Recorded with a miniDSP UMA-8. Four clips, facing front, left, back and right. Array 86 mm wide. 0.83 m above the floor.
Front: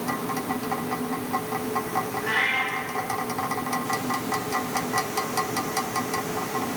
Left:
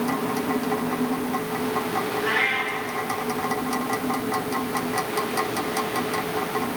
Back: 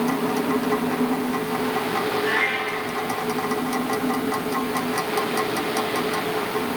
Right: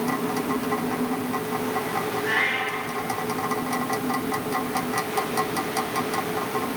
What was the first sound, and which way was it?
A cat meowing, 110° left.